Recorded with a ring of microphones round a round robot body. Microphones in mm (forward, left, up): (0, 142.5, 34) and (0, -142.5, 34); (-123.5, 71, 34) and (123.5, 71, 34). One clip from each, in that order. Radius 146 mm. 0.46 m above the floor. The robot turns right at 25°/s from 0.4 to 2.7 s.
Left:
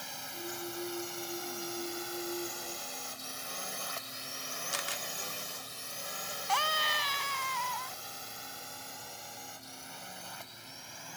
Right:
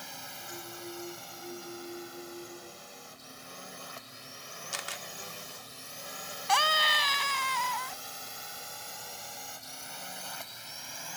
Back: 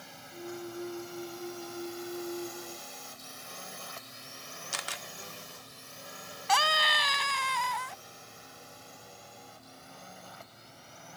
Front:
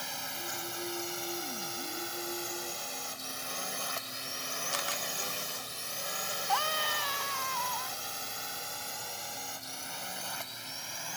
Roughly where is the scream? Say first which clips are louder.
Right 5 dB, back 8 dB; behind.